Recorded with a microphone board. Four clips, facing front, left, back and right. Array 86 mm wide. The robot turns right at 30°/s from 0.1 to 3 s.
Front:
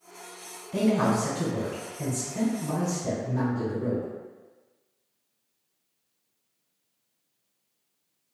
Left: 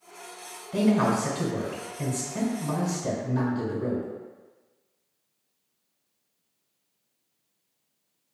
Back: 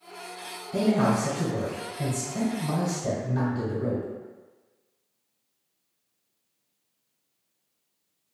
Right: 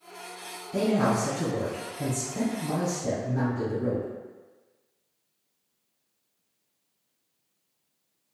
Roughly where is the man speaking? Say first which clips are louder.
Left 2 dB, back 1 dB; left.